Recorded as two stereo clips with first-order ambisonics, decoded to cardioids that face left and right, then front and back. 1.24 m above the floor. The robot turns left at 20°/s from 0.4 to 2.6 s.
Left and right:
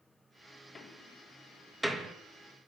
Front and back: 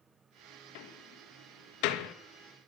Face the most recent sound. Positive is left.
turn(degrees=-20)